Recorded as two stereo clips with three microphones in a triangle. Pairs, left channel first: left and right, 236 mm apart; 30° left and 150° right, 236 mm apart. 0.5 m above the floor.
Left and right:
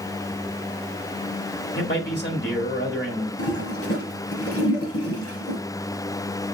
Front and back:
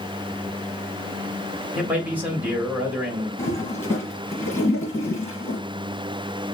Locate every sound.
1.8 s a man speaking: 130° left, 1.8 m
3.4 s a toilet flushing: 110° left, 2.0 m